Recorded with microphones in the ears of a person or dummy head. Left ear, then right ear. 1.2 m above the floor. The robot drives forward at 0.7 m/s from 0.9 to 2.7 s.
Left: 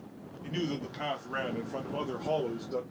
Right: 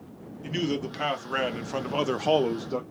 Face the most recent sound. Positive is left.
turn(degrees=-65)  # may be behind; listen again after turning